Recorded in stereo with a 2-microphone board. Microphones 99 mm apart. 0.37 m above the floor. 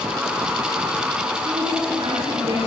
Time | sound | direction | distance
1.4 | a woman speaking | 55° right (ahead or behind) | 6.5 m